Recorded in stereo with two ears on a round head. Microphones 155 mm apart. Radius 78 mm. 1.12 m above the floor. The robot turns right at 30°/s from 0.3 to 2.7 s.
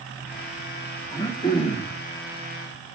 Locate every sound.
1.1 s throat clearing: 20° left (ahead or behind), 3 m; by 2.0 s 45° left (ahead or behind), 3 m